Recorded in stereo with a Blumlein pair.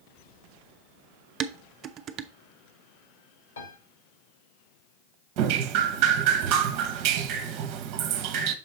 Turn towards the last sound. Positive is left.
turn(degrees=-40)